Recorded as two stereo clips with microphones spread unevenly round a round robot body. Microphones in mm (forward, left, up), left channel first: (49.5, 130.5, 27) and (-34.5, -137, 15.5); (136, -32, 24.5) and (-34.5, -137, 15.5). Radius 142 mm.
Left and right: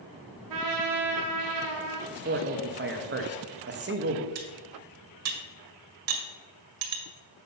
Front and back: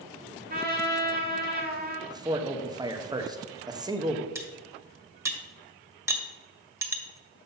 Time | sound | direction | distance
0.5 | a trumpet | 110° right | 1.4 m
2.1 | a man speaking | 90° right | 1.1 m
4.3 | cutlery clinking | 70° right | 1.7 m